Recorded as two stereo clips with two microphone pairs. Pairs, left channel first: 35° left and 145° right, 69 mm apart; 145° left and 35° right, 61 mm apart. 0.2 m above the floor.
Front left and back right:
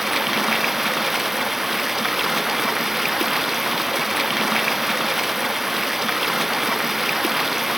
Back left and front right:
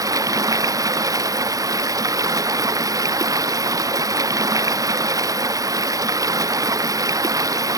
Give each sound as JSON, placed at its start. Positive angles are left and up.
{"t": 0.0, "sound": "running water", "azimuth_deg": -60}